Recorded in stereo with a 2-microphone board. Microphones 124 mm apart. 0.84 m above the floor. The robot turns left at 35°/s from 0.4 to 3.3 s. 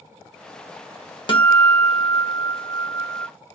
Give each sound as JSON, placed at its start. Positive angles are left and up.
{"t": 1.3, "sound": "a guitar", "azimuth_deg": 85, "distance_m": 1.1}